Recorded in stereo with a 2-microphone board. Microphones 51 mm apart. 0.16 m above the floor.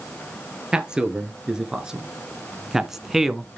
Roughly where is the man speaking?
Centre.